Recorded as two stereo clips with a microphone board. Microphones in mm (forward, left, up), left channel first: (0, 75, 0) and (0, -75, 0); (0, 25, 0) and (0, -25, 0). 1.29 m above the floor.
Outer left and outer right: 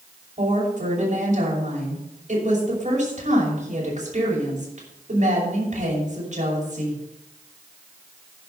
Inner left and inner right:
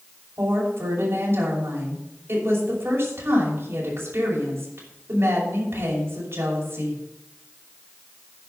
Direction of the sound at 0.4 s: 55° right (ahead or behind).